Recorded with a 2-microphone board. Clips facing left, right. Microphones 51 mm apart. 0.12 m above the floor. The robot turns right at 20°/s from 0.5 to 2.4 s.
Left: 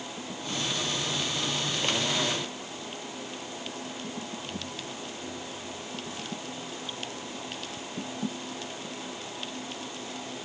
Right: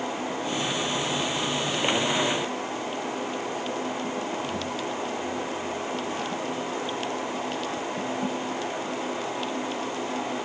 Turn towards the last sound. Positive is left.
No sound to turn to.